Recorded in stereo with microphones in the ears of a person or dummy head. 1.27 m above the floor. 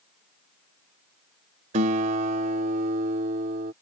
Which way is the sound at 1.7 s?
40° right (ahead or behind).